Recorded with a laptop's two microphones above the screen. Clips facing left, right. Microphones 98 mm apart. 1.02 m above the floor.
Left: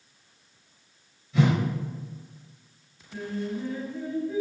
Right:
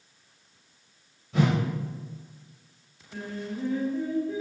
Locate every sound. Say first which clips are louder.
1.3 s a whoosh: left 1 dB; 75° right (ahead or behind), 1.2 m
3.1 s singing: left 3 dB; 50° right (ahead or behind), 1.5 m